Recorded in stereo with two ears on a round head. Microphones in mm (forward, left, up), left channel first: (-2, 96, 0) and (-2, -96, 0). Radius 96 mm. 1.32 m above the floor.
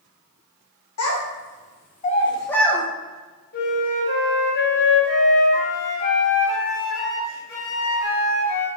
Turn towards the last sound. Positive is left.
turn(degrees=50)  # may be behind; listen again after turning